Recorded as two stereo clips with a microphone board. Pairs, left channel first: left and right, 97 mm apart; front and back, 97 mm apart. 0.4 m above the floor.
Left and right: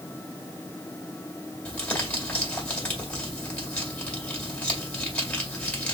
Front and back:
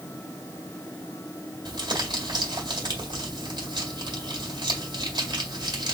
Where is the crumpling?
160° left, 2 m.